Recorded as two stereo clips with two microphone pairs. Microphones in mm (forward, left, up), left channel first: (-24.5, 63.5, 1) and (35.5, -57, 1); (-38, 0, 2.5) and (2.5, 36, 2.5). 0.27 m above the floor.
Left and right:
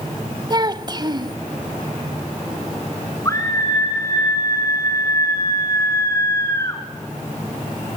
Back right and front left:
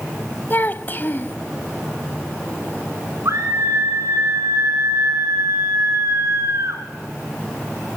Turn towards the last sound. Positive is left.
turn(degrees=50)